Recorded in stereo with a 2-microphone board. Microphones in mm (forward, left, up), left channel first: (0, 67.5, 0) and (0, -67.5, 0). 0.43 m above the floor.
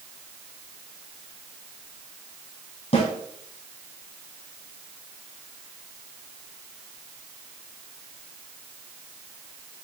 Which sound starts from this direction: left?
A snare drum, at 2.9 s.